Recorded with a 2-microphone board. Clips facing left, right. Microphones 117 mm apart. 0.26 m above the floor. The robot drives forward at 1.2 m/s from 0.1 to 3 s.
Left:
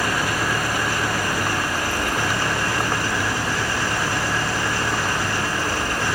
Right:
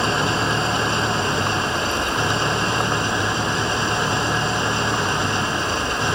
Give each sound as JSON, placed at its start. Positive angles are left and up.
{"t": 0.0, "sound": "an engine running", "side_deg": -25}